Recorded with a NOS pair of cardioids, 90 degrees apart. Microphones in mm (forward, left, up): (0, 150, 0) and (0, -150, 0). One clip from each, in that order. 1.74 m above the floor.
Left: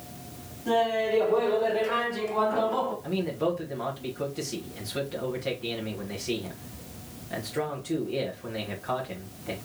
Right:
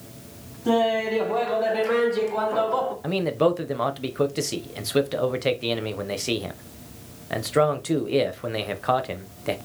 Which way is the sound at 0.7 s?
60° right.